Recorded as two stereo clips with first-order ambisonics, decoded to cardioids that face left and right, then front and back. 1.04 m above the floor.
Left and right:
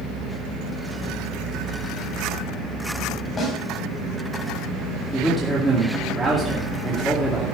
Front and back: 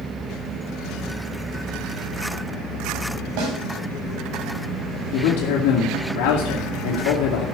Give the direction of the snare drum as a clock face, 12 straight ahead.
7 o'clock.